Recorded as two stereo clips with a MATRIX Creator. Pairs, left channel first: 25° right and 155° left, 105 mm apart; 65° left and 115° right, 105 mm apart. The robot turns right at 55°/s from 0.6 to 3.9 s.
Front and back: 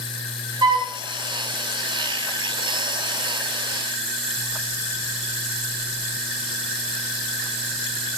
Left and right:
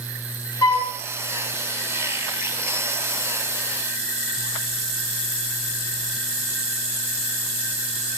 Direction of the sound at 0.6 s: 115° left.